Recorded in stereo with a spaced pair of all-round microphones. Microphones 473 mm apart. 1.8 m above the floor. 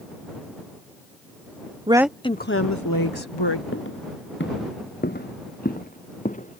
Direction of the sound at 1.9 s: 10° right (ahead or behind).